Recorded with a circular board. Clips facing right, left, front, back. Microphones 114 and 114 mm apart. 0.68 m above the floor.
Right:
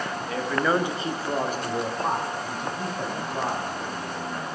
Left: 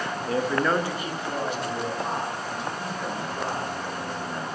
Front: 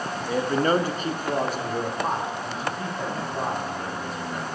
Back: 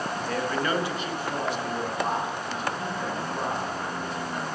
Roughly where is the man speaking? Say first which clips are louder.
Left 1 dB, front 6 dB; left.